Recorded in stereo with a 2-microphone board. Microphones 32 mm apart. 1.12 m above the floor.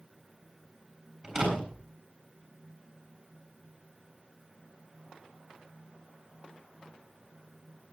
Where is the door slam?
10° right (ahead or behind), 7.5 m.